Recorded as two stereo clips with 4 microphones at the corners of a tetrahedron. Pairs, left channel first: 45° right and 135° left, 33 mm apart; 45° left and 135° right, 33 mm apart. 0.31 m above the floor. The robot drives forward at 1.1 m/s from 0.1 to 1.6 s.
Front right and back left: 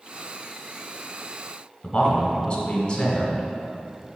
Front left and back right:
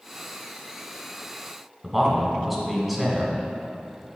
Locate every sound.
1.8 s a man speaking: 65° right, 1.0 m